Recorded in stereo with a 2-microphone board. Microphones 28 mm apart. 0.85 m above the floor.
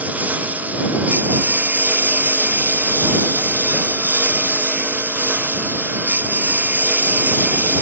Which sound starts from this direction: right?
A lawn mower, at 0.0 s.